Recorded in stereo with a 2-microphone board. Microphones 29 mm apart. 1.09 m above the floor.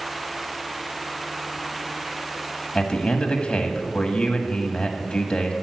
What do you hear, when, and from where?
2.8 s a man speaking: 45° left (ahead or behind), 1.6 m